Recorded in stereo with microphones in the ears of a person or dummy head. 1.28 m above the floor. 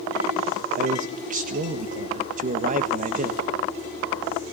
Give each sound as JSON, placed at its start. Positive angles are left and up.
{"t": 0.8, "sound": "a man speaking", "side_deg": -40, "distance_m": 1.5}